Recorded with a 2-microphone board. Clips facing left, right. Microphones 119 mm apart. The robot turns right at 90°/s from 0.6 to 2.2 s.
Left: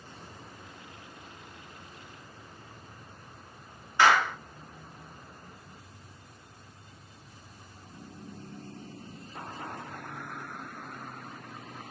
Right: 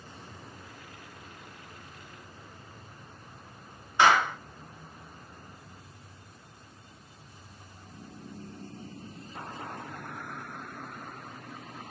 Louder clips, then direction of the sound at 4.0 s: Right 1 dB; 20° right (ahead or behind).